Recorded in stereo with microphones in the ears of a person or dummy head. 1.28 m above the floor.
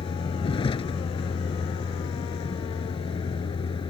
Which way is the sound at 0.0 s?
25° left (ahead or behind).